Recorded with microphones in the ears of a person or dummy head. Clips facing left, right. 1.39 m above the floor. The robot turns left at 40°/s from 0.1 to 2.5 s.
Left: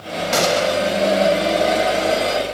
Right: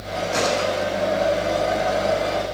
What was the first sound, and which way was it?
A gunshot, 85° left.